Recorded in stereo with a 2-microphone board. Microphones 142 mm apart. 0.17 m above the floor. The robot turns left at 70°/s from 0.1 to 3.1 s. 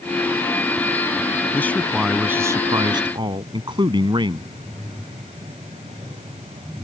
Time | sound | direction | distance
1.5 | a man speaking | 30° left | ?